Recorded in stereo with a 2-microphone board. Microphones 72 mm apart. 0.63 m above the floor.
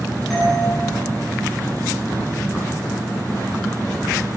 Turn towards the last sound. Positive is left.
turn(degrees=0)  # may be behind; listen again after turning